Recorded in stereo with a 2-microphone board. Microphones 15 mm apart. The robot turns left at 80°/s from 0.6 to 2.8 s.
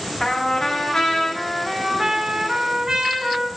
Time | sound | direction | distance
0.2 | a trumpet | 90° left | 1.5 m